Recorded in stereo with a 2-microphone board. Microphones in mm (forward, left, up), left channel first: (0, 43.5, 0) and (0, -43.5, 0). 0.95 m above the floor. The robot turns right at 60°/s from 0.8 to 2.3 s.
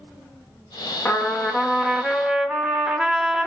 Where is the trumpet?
20° left (ahead or behind), 0.6 m; by 3.5 s 10° right (ahead or behind), 0.6 m.